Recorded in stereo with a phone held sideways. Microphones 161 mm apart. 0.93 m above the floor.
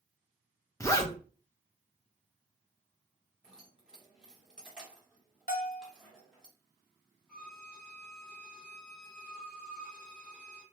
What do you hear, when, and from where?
0.8 s a zipper: 20° left (ahead or behind), 0.5 m
3.4 s keys jangling: 5° right (ahead or behind), 1.2 m
5.5 s a bell: 65° left (ahead or behind), 0.6 m
7.3 s a violin: 5° left (ahead or behind), 1.7 m